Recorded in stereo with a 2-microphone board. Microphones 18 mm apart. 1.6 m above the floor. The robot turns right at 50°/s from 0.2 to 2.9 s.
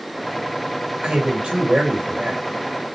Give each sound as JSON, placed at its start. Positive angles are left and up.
{"t": 1.0, "sound": "a man speaking", "azimuth_deg": -125, "distance_m": 1.7}